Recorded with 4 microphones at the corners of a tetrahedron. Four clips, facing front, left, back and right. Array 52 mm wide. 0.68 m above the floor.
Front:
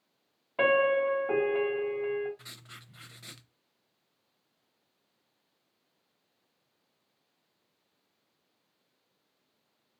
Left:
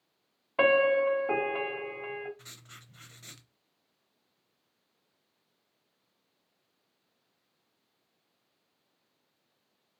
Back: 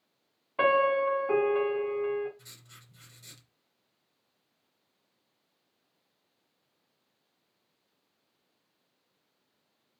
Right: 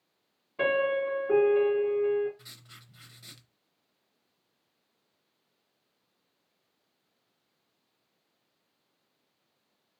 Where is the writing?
20° left, 0.6 m.